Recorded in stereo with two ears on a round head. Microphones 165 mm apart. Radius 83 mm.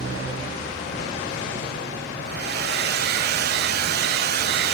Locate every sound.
2.2 s a hair dryer: 55° right (ahead or behind), 0.9 m